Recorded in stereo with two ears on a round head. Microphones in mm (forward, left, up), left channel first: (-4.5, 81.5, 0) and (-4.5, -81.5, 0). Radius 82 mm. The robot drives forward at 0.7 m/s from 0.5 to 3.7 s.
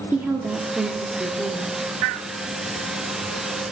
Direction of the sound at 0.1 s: 10° right (ahead or behind).